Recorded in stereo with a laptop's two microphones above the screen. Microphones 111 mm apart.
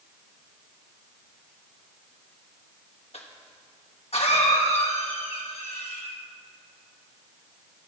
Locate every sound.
3.1 s a cough: 65° left (ahead or behind), 1.1 m